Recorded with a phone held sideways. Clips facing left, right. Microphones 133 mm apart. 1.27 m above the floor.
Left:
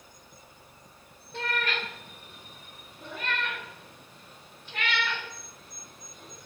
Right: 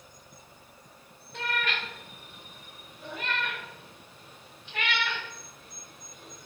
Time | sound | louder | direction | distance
1.3 | a cat meowing | left 1 dB | 30° left (ahead or behind) | 1.4 m